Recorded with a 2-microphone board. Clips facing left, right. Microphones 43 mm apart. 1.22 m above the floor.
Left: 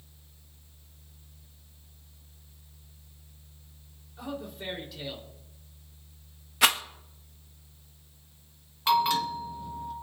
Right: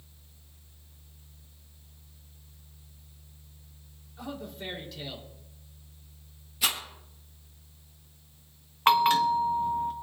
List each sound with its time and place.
4.2 s a man speaking: 5° left (ahead or behind), 3.5 m
6.6 s a rattle: 70° left (ahead or behind), 1.4 m
8.9 s a bell: 50° right (ahead or behind), 1.5 m